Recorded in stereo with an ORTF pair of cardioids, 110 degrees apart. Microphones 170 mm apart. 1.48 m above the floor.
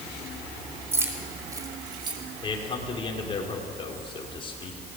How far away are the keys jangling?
About 3.5 m.